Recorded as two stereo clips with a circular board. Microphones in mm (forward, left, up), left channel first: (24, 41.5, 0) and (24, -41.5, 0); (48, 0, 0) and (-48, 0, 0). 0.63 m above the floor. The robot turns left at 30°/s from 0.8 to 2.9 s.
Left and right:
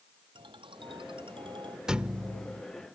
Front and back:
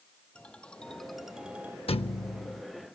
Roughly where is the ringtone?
Right.